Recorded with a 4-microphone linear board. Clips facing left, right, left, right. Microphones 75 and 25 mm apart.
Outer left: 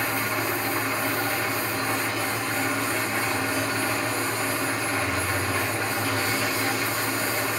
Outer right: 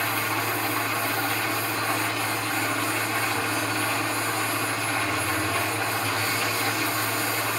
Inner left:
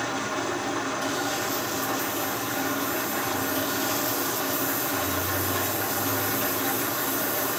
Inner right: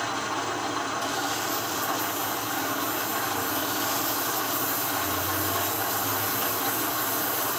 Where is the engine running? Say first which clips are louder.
Even, even; 15° left (ahead or behind), 8 m.